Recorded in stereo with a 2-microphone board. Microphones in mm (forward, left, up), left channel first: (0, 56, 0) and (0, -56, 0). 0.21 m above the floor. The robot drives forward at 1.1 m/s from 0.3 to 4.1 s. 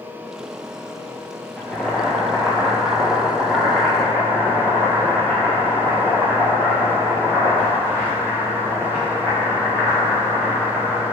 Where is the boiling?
15° left (ahead or behind), 0.7 m; by 11.0 s 5° left (ahead or behind), 3.5 m.